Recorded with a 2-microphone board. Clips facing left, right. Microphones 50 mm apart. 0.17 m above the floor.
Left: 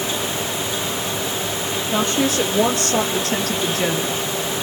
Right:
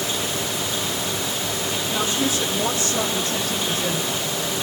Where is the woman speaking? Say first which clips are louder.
Left 5 dB; 60° left (ahead or behind), 4.5 m; by 4.2 s 65° left (ahead or behind), 3 m.